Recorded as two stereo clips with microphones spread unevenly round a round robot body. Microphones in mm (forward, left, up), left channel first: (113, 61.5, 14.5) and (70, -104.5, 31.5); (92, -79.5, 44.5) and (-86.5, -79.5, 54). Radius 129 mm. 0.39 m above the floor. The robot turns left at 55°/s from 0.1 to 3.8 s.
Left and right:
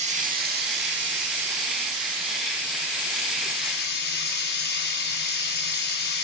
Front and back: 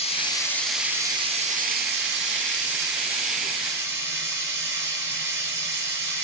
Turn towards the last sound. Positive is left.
turn(degrees=100)